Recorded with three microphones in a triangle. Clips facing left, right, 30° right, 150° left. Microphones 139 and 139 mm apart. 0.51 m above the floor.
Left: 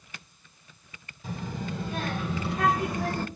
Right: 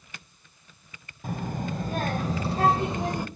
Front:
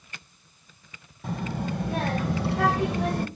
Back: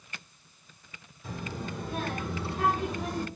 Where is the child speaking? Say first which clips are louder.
Right 3 dB, front 7 dB; 55° right, 1.8 m; by 3.3 s 15° right, 0.9 m.